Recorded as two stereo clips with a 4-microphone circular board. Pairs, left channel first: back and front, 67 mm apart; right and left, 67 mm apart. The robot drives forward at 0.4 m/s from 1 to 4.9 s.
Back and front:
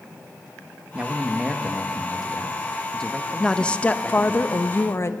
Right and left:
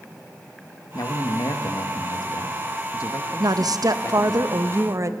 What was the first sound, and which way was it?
A man speaking, 75° right.